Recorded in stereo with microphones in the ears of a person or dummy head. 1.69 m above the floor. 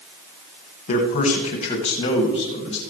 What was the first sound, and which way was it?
A man speaking, 45° left (ahead or behind).